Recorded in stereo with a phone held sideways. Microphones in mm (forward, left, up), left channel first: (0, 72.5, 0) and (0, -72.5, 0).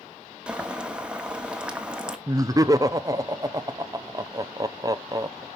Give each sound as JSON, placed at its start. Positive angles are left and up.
{"t": 0.5, "sound": "boiling", "side_deg": -5, "distance_m": 1.1}
{"t": 2.3, "sound": "laughter", "side_deg": -25, "distance_m": 0.6}